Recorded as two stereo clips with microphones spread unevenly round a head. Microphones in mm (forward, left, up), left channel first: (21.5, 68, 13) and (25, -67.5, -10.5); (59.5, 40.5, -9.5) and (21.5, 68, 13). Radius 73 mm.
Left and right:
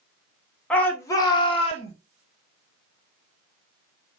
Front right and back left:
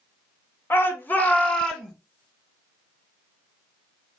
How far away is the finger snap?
I don't hear a finger snap.